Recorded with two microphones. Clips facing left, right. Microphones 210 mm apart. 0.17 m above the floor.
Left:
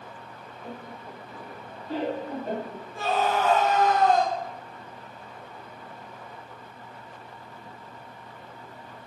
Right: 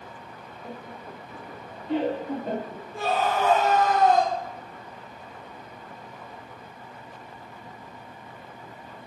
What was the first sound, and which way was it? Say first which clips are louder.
Laughter: even; 5° right (ahead or behind).